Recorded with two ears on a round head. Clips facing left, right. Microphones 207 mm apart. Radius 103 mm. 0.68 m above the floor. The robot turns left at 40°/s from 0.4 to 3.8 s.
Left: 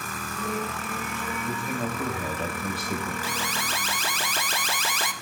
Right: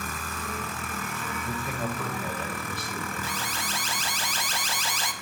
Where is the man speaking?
160° right, 2.5 m; by 3.1 s 135° left, 2.5 m.